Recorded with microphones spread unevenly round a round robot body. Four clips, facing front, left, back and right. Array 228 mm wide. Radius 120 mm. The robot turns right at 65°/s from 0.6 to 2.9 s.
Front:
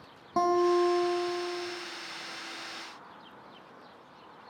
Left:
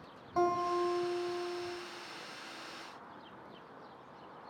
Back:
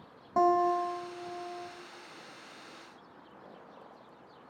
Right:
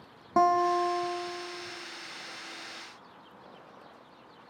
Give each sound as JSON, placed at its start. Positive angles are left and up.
{"t": 0.4, "sound": "a guitar", "azimuth_deg": -80, "distance_m": 1.5}